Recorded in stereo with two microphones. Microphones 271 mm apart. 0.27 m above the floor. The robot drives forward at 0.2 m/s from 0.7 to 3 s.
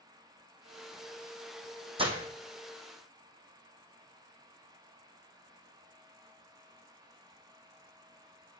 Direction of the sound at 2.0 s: 20° right (ahead or behind).